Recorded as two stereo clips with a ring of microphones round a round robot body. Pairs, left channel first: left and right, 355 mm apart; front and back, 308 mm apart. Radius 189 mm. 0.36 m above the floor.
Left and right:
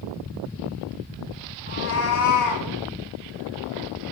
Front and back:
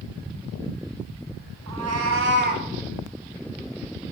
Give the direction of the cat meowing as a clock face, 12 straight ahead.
7 o'clock.